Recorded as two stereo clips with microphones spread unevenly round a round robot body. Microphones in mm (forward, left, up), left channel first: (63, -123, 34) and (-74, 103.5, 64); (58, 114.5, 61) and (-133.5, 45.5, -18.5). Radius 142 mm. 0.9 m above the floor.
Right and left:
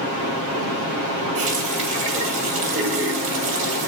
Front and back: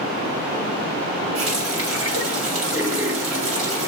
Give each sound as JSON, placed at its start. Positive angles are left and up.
{"t": 1.4, "sound": "a running tap", "azimuth_deg": -175, "distance_m": 3.0}